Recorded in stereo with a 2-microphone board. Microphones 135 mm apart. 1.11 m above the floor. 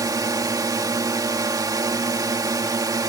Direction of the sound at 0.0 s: 25° right (ahead or behind).